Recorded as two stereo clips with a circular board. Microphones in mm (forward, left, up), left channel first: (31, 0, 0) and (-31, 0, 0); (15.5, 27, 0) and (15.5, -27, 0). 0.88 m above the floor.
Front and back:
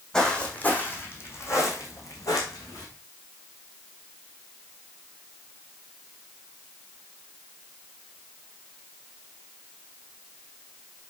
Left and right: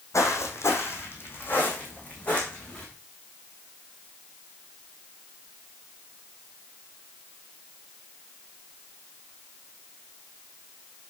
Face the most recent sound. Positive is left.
turn(degrees=20)